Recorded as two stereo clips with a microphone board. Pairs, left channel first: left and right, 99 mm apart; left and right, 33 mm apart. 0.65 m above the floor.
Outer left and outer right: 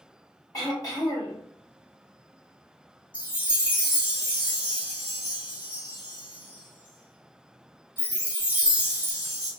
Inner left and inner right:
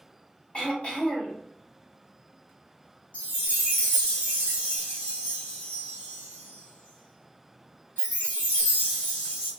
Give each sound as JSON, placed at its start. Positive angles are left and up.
{"t": 0.5, "sound": "throat clearing", "side_deg": 30, "distance_m": 1.3}
{"t": 3.1, "sound": "a chime", "side_deg": 50, "distance_m": 1.5}